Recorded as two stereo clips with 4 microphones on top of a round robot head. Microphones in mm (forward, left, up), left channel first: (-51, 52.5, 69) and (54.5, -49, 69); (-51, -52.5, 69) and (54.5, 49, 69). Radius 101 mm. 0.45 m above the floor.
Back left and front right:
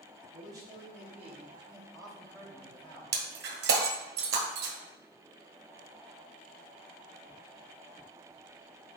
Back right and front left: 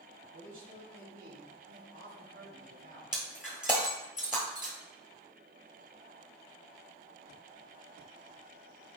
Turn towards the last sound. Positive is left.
turn(degrees=-40)